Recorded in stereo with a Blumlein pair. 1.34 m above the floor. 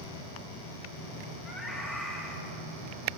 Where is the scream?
15° right, 5 m.